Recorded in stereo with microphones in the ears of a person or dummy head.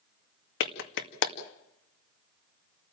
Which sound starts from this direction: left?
A clap, at 0.6 s.